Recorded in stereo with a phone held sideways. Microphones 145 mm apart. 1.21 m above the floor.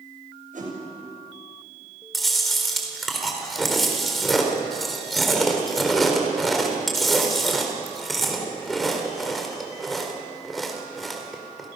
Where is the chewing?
Centre (ahead or behind), 4 m.